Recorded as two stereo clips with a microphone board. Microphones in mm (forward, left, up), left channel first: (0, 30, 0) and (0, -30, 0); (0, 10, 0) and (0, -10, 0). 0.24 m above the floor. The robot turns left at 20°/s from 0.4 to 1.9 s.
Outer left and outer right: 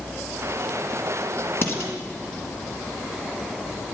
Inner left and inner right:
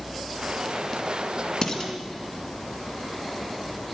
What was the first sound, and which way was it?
Dishes clattering, 45° left (ahead or behind).